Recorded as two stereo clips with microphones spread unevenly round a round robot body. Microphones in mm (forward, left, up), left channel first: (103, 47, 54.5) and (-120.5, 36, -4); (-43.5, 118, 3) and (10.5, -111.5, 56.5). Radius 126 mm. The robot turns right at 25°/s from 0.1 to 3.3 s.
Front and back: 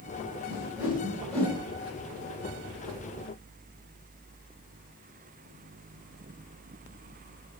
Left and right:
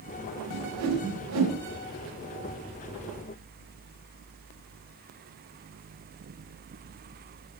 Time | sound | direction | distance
0.5 | a whoosh | 115° right | 2.5 m